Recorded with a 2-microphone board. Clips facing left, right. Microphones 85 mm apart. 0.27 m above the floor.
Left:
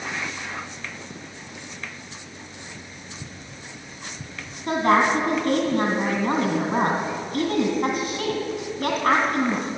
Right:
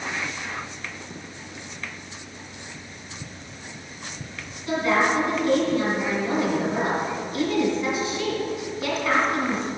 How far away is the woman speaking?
About 2 m.